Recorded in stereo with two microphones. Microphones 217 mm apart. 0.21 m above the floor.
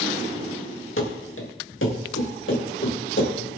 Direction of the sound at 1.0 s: 70° left (ahead or behind).